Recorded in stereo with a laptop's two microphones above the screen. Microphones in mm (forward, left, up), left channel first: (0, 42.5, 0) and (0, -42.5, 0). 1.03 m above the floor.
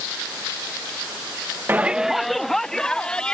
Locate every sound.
1.7 s a shout: 25° right (ahead or behind); by 3.4 s 10° left (ahead or behind)